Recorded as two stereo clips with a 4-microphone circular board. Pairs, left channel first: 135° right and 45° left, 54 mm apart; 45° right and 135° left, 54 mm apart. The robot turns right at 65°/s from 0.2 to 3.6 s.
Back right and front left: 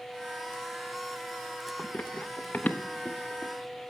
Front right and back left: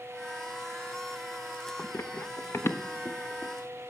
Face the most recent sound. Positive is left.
turn(degrees=-45)